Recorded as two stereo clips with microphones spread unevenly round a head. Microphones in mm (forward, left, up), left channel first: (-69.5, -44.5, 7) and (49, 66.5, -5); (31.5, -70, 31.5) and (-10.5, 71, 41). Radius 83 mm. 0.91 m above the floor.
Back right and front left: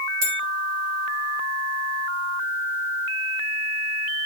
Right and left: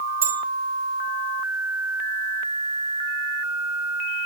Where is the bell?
25° left, 4 m.